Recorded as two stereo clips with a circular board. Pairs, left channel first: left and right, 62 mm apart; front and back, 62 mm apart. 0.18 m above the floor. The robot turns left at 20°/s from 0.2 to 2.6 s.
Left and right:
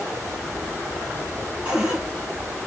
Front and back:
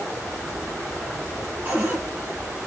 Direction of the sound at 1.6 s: 150° right.